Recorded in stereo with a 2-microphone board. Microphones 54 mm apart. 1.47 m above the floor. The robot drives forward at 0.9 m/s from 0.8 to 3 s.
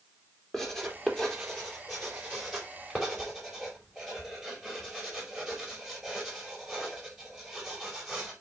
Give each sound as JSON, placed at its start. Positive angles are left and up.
{"t": 0.5, "sound": "writing", "side_deg": 5, "distance_m": 1.7}